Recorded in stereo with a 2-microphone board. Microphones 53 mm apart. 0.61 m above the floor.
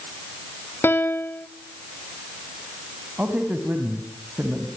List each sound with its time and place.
0.8 s a piano: 45° left (ahead or behind), 1.1 m
3.2 s a man speaking: 30° right (ahead or behind), 4 m